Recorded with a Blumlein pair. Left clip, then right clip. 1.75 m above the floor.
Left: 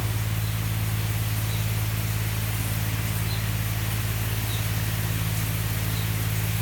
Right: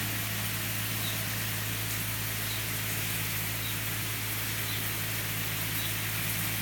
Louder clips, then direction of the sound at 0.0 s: Even; 55° left.